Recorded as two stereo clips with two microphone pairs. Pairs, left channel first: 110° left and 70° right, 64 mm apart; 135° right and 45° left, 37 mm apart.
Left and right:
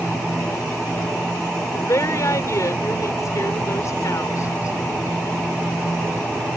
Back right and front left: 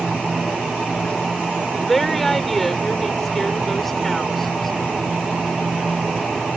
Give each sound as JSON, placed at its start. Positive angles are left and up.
{"t": 1.7, "sound": "a woman speaking", "azimuth_deg": 145}